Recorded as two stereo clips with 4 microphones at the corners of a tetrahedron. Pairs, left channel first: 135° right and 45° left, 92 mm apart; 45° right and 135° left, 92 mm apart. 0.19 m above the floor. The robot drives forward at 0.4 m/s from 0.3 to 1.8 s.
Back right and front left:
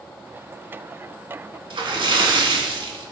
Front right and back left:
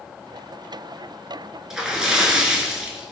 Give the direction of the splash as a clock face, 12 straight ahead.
10 o'clock.